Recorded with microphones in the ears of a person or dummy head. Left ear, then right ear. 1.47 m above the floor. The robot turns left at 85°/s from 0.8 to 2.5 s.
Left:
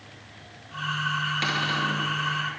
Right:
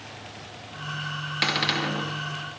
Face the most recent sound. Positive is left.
turn(degrees=-105)